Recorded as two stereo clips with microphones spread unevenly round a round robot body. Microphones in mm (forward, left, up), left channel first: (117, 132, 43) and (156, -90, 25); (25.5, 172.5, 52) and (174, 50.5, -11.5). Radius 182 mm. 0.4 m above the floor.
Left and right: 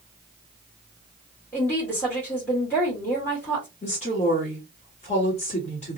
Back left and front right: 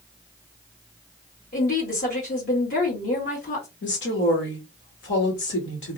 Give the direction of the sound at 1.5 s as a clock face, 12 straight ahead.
6 o'clock.